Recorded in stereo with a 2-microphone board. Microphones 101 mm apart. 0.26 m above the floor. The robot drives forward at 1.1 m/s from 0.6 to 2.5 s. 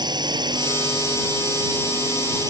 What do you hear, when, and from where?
0.0 s a drone: 45° right (ahead or behind); by 2.5 s 40° right (ahead or behind)